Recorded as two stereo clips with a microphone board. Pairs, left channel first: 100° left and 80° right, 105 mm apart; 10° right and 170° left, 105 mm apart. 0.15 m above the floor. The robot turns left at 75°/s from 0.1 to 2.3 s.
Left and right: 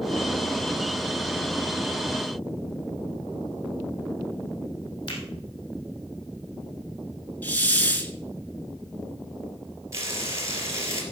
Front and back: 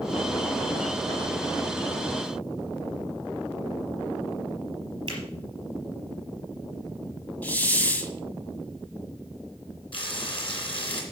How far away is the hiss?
About 1.2 m.